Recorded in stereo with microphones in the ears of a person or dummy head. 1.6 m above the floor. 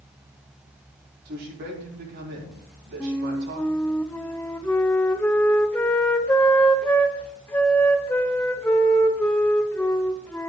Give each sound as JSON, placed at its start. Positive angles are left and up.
{"t": 1.2, "sound": "a man speaking", "side_deg": -50, "distance_m": 3.5}
{"t": 3.0, "sound": "a flute", "side_deg": 10, "distance_m": 0.5}